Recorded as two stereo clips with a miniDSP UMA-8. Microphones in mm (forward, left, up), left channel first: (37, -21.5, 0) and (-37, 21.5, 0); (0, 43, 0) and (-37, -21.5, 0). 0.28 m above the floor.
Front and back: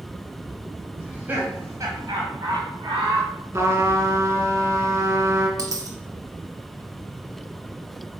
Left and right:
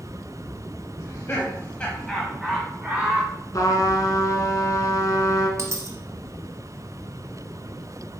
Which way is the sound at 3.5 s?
95° left.